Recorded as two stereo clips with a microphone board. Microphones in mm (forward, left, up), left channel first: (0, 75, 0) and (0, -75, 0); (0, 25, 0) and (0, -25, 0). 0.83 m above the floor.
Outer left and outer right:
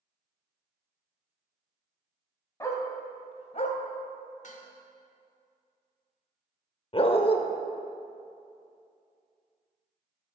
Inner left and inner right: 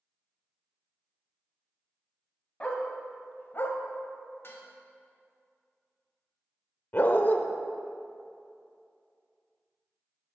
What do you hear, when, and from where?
2.6 s a dog barking: 20° left (ahead or behind), 1.2 m; by 3.8 s 50° left (ahead or behind), 0.8 m
4.4 s dishes clattering: 55° left (ahead or behind), 1.3 m
6.9 s a dog barking: 40° left (ahead or behind), 0.6 m